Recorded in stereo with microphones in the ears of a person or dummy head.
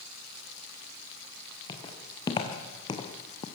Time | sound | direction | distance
1.7 | footsteps | 25° left (ahead or behind) | 4.5 m